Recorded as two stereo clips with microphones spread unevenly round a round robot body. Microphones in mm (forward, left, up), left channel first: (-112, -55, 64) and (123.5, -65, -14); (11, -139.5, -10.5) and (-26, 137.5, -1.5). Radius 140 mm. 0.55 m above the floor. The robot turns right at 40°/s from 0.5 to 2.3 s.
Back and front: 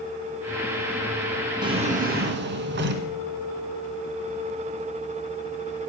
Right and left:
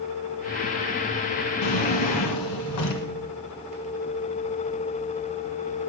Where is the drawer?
80° right, 1.4 m; by 3.1 s 50° right, 1.4 m.